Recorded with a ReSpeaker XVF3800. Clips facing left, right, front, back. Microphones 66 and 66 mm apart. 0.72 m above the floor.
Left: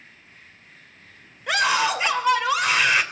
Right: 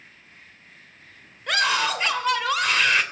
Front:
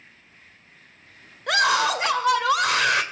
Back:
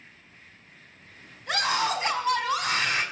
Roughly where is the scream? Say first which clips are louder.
Left 2 dB, front 6 dB; ahead.